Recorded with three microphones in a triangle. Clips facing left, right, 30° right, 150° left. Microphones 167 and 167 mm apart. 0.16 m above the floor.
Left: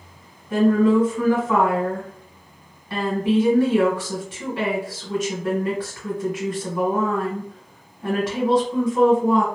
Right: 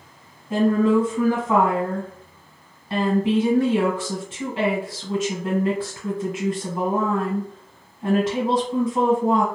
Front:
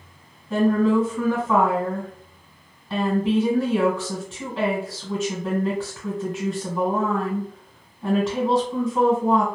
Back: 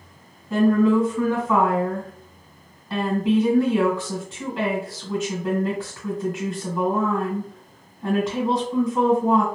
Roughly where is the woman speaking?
Behind right.